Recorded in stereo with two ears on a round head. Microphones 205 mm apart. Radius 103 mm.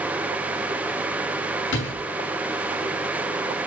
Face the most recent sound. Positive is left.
turn(degrees=50)  # may be behind; listen again after turning